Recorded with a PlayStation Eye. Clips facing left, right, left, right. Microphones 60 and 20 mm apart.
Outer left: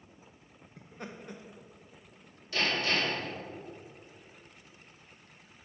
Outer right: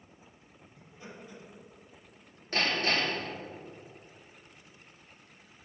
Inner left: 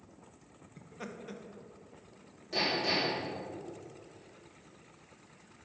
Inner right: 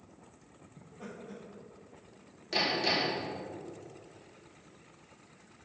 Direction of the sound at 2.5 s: 45° right (ahead or behind).